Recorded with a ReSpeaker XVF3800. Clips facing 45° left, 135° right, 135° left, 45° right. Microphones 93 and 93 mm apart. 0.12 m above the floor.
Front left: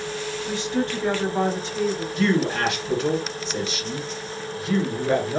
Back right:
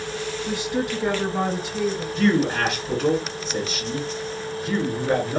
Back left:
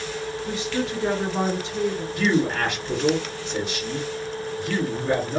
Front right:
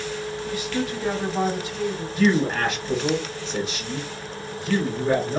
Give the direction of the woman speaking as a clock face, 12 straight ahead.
7 o'clock.